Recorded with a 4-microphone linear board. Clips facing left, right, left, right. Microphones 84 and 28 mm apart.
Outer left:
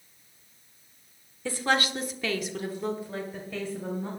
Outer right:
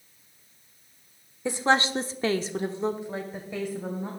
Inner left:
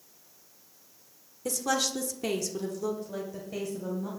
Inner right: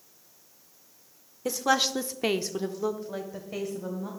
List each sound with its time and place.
1.4 s a woman speaking: 20° right (ahead or behind), 1.3 m; by 4.1 s 15° right (ahead or behind), 3 m